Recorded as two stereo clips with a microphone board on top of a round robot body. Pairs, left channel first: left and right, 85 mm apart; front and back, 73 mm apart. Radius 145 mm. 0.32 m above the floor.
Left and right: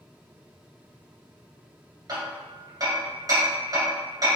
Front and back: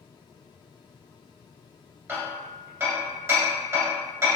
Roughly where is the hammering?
Behind right.